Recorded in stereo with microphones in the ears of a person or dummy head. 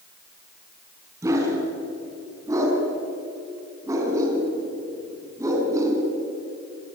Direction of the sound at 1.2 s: 15° right (ahead or behind).